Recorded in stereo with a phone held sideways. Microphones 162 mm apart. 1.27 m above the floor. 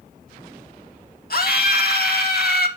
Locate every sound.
1.3 s a scream: 70° left (ahead or behind), 1.9 m